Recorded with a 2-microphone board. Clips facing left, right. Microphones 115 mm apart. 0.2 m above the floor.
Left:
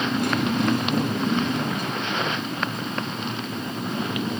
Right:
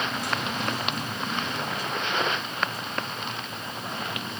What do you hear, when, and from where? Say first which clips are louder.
0.0 s a motorcycle: left 7 dB; 65° left (ahead or behind)